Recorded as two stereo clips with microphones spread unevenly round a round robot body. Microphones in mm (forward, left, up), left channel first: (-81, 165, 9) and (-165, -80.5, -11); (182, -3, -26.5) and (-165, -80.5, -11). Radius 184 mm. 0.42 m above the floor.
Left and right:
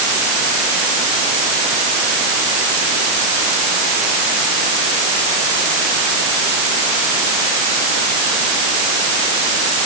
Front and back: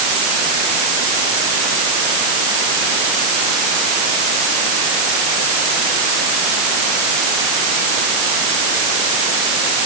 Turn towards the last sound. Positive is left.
No sound to turn to.